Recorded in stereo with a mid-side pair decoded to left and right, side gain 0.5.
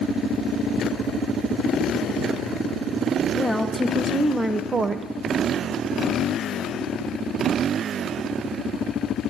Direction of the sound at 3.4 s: 5° left.